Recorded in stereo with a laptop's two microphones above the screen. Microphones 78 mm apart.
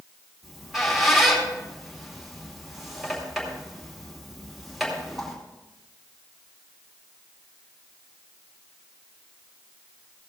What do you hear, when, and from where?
0.4 s a squeak: centre (ahead or behind), 2.5 m